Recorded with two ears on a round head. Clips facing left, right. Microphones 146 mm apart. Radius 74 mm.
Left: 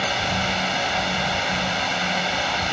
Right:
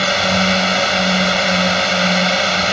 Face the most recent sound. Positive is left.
turn(degrees=-75)  # may be behind; listen again after turning